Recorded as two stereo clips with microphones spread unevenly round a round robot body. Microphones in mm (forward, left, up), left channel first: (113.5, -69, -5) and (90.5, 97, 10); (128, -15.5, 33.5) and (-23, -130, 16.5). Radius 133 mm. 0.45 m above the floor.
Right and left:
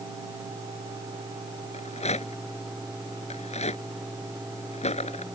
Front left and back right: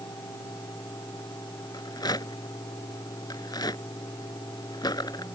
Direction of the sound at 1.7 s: 30° right.